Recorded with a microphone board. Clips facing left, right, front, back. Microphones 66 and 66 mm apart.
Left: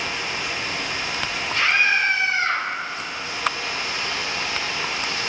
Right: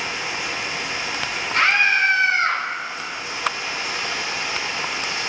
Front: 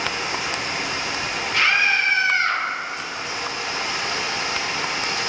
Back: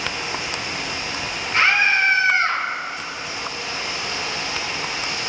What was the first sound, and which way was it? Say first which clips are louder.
Running water: right 1 dB, front 2 dB; 20° right.